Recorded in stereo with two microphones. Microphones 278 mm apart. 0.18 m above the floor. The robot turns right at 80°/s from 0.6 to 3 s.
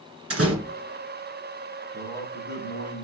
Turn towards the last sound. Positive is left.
turn(degrees=80)